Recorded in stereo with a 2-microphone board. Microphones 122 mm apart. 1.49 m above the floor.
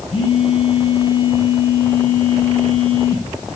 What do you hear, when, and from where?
0.1 s a phone buzzing: 55° left (ahead or behind), 4.5 m